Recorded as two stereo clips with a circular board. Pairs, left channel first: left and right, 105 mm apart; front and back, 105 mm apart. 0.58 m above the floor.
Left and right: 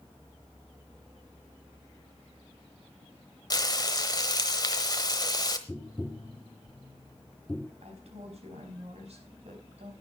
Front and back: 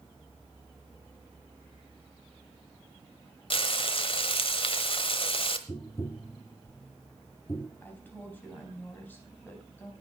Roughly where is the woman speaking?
Right.